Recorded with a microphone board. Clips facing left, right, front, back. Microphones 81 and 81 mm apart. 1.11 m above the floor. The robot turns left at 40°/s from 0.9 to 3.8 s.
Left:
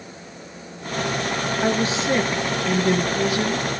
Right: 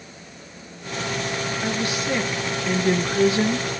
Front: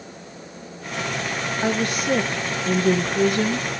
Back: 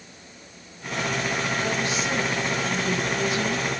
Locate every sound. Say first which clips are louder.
1.6 s a woman speaking: left 6 dB, front 3 dB; 40° left, 1.3 m; by 3.7 s 40° right, 1.3 m